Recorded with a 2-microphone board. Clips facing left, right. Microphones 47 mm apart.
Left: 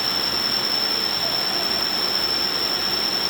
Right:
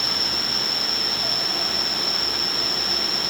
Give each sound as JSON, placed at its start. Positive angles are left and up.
{"t": 0.0, "sound": "an insect", "side_deg": -50, "distance_m": 1.3}